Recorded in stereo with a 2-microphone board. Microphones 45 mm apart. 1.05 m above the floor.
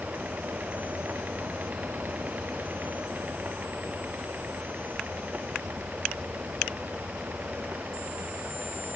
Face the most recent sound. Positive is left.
No sound to turn to.